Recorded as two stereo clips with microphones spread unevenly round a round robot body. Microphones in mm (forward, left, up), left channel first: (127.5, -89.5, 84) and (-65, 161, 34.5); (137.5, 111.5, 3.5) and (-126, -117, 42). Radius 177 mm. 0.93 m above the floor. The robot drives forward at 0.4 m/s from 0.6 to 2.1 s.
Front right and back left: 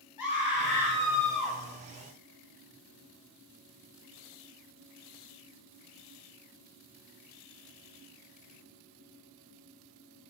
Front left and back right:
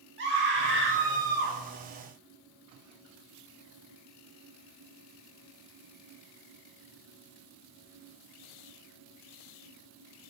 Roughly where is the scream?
Right.